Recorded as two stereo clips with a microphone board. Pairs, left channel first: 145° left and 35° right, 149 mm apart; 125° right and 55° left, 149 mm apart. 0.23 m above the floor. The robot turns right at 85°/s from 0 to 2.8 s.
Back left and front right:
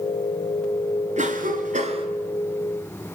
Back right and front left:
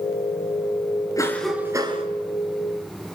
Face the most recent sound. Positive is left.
turn(degrees=80)